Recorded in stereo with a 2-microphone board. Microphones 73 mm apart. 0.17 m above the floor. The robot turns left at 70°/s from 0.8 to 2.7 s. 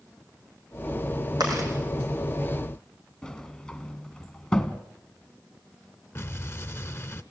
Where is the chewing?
70° right (ahead or behind), 6.5 m; by 1.7 s 50° right (ahead or behind), 6.5 m.